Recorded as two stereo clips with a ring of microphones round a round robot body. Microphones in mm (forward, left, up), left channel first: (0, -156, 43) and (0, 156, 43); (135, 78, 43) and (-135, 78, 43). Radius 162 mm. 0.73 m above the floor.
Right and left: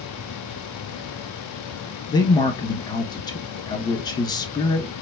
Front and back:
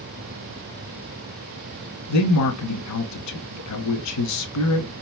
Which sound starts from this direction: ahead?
A man speaking, at 2.1 s.